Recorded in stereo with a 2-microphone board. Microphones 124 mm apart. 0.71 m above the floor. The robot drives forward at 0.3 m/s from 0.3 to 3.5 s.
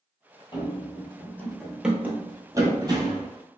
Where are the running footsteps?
40° left (ahead or behind), 0.9 m; by 3.3 s 40° right (ahead or behind), 1.2 m.